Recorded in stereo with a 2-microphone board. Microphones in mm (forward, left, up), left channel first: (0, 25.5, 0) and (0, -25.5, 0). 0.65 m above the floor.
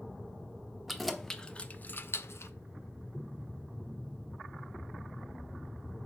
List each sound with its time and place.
0.9 s keys jangling: centre (ahead or behind), 0.8 m; by 2.5 s 55° left (ahead or behind), 0.6 m